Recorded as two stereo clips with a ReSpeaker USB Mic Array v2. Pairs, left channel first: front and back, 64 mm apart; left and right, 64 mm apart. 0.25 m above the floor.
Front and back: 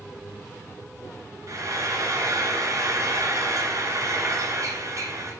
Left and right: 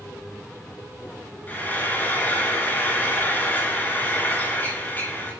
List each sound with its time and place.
1.5 s frying: 150° left, 2.0 m